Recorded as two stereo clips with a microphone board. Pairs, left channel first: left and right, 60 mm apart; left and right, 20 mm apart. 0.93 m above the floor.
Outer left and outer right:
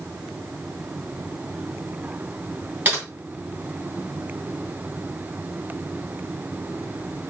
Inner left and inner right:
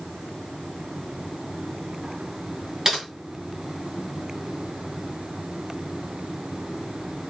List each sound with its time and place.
2.9 s typing on a keyboard: 35° right (ahead or behind), 2.5 m